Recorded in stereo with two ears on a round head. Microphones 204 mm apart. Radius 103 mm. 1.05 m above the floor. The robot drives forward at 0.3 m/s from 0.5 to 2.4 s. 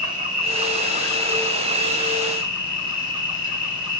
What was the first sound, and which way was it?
An insect, 35° right (ahead or behind).